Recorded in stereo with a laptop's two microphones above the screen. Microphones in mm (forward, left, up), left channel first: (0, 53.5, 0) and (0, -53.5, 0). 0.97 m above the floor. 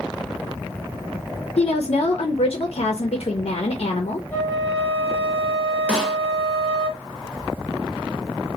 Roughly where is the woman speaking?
Left.